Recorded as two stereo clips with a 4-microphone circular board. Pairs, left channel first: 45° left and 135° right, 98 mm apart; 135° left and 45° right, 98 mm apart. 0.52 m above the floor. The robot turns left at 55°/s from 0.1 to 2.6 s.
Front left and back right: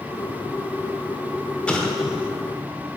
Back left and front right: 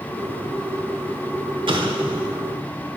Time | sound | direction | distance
1.7 | an explosion | 30° right | 0.9 m